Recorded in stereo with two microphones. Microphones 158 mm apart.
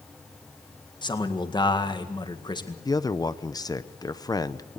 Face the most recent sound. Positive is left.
turn(degrees=25)  # may be behind; listen again after turning